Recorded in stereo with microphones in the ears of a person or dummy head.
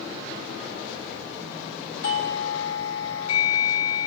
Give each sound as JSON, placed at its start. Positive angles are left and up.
{"t": 2.0, "sound": "a doorbell", "side_deg": 85, "distance_m": 3.5}